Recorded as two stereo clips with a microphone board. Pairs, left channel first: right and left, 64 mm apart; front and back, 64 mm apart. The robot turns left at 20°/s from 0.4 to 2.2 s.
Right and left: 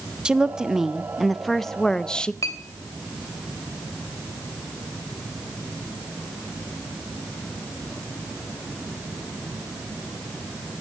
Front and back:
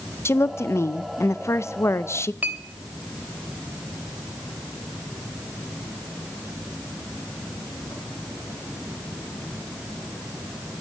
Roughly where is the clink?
Behind right.